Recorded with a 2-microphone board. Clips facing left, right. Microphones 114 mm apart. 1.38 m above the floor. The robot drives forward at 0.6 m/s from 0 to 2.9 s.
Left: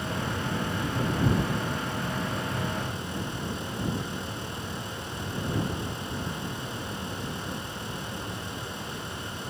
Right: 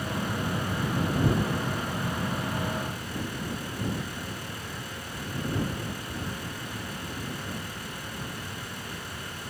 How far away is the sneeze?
No sneeze in this recording.